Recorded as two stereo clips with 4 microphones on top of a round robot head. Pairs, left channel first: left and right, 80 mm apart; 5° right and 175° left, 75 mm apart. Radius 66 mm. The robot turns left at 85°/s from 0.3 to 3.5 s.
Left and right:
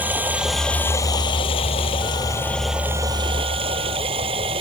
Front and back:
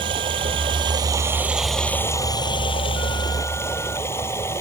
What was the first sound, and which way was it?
Running water, 160° right.